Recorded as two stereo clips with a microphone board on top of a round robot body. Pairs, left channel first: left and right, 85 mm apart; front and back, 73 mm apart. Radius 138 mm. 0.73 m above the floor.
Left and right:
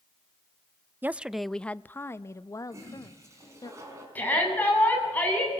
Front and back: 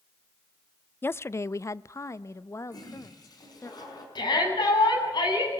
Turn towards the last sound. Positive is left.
turn(degrees=20)